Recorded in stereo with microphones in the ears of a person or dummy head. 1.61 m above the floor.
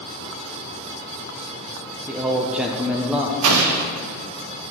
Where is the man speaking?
5° right (ahead or behind), 0.7 m.